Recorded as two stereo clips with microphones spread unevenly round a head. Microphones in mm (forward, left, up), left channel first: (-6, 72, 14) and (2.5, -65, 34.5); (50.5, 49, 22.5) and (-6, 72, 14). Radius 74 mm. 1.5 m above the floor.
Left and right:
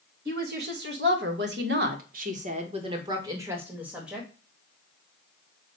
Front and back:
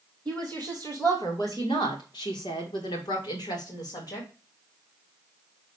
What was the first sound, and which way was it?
A woman speaking, 105° right.